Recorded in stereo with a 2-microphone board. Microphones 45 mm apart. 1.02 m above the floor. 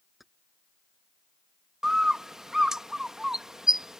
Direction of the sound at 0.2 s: 5° right (ahead or behind).